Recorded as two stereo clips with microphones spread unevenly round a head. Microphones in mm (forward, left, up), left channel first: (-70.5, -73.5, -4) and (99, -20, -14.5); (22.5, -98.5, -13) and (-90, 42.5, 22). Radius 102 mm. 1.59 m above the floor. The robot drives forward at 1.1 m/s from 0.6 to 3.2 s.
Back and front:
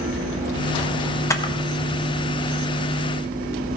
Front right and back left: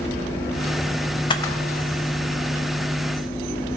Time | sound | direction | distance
1.3 | a camera shutter | 110° right | 0.8 m